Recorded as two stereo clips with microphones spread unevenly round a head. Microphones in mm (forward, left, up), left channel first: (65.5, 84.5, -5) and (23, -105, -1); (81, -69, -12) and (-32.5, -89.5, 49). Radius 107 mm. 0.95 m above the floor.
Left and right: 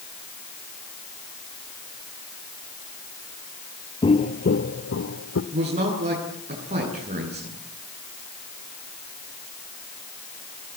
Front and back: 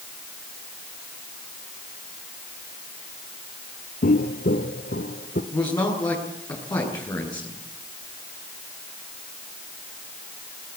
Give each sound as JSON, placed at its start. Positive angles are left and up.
{"t": 4.0, "sound": "footsteps", "azimuth_deg": 30, "distance_m": 1.0}
{"t": 5.5, "sound": "a man speaking", "azimuth_deg": -50, "distance_m": 9.0}